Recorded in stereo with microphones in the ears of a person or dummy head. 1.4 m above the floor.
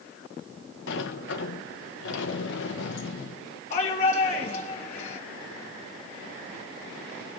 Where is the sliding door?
70° left (ahead or behind), 1.5 m.